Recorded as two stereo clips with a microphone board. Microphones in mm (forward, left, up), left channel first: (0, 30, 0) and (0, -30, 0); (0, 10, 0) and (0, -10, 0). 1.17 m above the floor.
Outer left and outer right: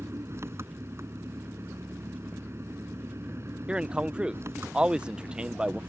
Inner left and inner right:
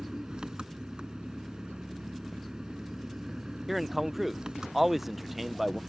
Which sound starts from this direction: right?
An engine running, at 0.0 s.